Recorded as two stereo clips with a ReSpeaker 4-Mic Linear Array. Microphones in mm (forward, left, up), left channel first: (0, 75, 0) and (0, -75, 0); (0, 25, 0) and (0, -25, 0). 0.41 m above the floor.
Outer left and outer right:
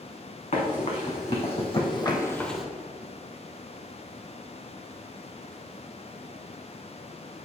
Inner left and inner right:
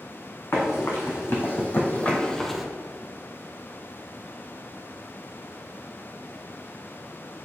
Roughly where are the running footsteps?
Left.